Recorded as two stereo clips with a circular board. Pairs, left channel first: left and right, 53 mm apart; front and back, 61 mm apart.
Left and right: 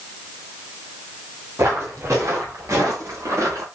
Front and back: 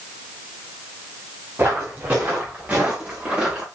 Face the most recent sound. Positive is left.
turn(degrees=-110)